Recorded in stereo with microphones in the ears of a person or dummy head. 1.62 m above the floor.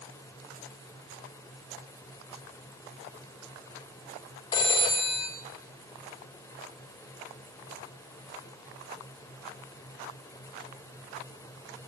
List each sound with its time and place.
4.5 s a phone ringing: 15° left (ahead or behind), 0.5 m